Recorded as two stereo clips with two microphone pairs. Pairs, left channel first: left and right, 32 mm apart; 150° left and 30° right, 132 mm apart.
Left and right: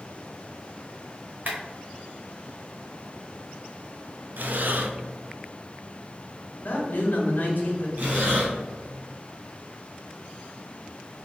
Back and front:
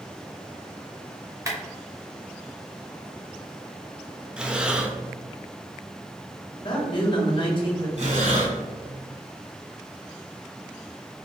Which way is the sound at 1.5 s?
90° right.